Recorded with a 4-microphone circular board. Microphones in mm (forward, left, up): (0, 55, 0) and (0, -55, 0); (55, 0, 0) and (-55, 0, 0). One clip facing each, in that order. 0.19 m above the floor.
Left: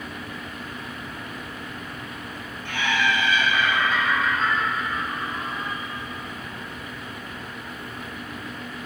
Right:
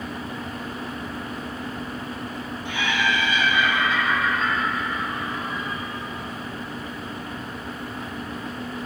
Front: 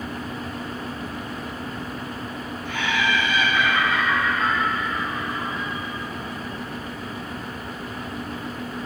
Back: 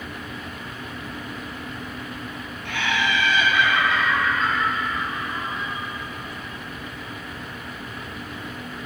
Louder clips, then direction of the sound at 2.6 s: Left 1 dB, even; 165° right.